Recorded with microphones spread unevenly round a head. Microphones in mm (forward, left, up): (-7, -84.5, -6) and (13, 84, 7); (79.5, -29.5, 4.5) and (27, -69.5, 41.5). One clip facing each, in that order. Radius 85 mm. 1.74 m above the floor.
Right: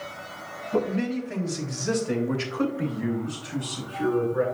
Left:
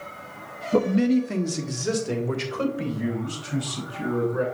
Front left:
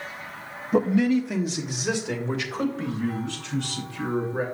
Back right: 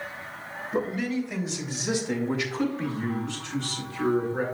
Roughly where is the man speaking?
Ahead left.